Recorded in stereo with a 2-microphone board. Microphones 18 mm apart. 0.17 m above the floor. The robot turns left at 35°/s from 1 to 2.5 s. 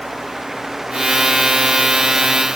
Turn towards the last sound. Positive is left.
No sound to turn to.